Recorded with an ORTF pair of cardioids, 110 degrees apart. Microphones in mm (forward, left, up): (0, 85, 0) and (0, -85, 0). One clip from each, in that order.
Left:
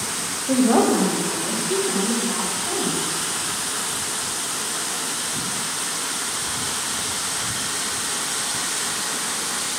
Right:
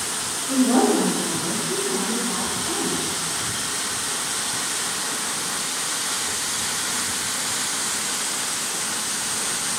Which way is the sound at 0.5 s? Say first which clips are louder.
Left 1 dB; 65° left.